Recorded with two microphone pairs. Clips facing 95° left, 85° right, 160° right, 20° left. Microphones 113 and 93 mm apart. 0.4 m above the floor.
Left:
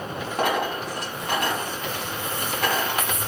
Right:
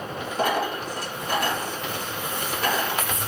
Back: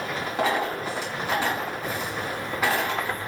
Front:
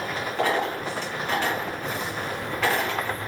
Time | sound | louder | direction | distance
0.4 | a dropped coin | even, even | 120° left | 1.7 m